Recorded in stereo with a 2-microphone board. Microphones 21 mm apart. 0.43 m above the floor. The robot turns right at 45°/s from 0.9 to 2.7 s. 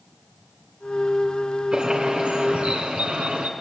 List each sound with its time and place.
1.7 s a bird: 135° right, 3 m; by 3.5 s 90° right, 3 m